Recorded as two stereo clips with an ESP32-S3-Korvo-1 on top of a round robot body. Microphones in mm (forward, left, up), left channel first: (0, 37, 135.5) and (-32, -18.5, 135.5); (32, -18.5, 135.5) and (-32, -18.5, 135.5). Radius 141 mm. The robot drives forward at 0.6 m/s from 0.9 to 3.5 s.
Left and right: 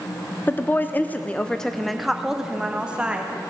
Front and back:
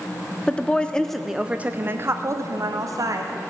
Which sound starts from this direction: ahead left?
A woman speaking, at 0.5 s.